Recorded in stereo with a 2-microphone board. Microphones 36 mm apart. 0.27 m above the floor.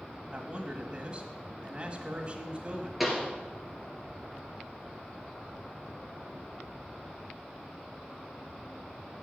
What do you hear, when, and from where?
0.3 s a man speaking: 30° right (ahead or behind), 1.3 m
3.0 s a pop: 5° right (ahead or behind), 2.5 m